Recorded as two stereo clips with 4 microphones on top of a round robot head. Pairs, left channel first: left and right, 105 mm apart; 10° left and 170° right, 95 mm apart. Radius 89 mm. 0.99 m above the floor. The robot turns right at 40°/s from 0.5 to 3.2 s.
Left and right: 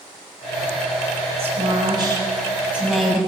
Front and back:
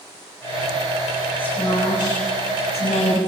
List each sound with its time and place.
1.4 s a woman speaking: 65° right, 8.5 m; by 3.2 s 5° left, 8.5 m